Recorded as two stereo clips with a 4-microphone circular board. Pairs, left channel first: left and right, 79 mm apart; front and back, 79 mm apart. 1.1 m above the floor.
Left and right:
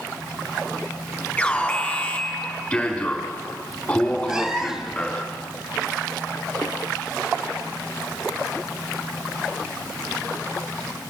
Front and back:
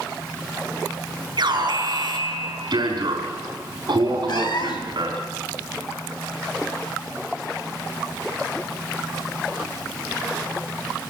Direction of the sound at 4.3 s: 10° right.